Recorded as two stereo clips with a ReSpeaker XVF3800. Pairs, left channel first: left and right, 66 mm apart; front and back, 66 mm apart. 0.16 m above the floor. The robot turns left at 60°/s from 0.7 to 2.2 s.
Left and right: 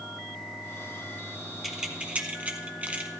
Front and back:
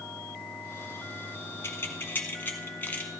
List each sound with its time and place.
1.6 s keys jangling: 5° right, 0.9 m; by 3.1 s 40° right, 0.9 m